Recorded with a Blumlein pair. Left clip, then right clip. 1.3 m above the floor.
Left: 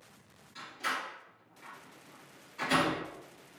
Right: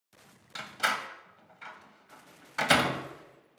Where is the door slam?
40° right, 0.6 m.